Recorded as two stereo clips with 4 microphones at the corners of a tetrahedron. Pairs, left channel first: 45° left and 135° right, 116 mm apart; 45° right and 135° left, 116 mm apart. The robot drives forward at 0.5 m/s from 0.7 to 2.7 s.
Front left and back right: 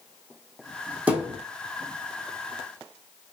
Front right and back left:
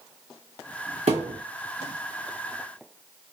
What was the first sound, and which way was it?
A thud, 145° left.